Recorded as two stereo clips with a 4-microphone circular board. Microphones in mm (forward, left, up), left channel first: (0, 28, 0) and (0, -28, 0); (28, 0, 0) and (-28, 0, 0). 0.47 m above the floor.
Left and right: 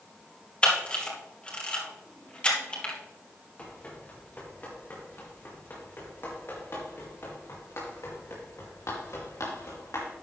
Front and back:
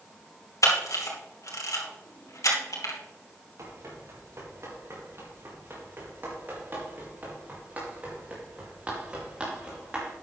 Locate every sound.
0.6 s a camera shutter: 20° left, 3 m
3.6 s running footsteps: 150° left, 4.5 m; by 10.1 s 105° left, 5.5 m